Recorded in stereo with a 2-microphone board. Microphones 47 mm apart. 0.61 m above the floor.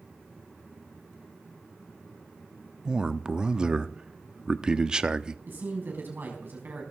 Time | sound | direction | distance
2.9 | a man speaking | 20° right (ahead or behind) | 0.7 m
5.5 | a man speaking | 50° right (ahead or behind) | 5.5 m